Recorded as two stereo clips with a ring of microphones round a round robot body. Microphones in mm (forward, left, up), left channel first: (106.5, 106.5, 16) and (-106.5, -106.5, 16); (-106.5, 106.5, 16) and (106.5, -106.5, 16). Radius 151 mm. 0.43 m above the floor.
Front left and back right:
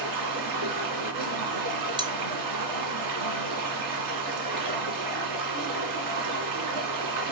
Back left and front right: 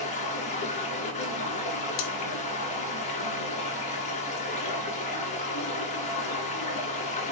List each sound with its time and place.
0.0 s running water: 155° right, 2.5 m
2.0 s cutlery clinking: 150° left, 1.2 m